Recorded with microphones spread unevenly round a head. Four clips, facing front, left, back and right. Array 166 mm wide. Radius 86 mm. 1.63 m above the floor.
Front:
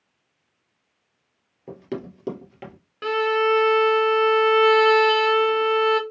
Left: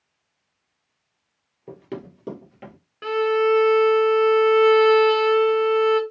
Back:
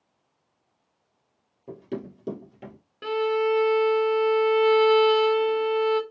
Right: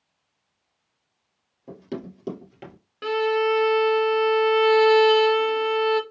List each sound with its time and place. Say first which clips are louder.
1.7 s running footsteps: even, front 2 dB; 15° left, 2 m; by 2.8 s 15° right, 2 m
3.0 s a violin: left 2 dB, front 3 dB; 15° right, 0.7 m